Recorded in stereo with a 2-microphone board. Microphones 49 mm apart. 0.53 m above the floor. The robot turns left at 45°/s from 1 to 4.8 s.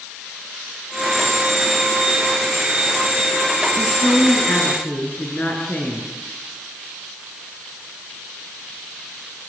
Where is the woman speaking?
80° left, 7.5 m; by 6.1 s 35° left, 7.5 m.